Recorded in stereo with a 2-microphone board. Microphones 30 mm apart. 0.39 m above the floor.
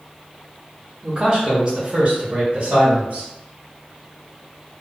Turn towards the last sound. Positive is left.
turn(degrees=-45)  # may be behind; listen again after turning